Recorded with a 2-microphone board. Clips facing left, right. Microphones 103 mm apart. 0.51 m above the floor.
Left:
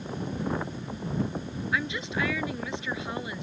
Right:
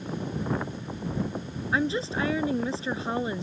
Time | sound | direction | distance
1.7 | a woman speaking | 35° right (ahead or behind) | ?